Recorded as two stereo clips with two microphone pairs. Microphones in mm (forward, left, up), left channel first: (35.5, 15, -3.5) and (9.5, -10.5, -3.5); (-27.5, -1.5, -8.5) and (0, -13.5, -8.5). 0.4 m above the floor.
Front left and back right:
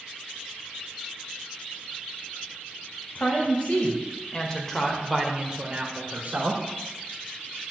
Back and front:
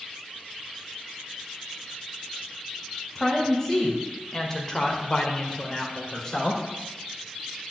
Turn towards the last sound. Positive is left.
turn(degrees=-140)